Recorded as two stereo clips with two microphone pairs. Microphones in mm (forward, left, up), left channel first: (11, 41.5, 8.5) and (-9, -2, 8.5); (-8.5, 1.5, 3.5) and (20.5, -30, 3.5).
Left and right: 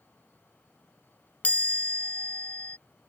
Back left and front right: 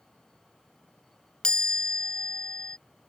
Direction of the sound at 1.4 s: 80° left.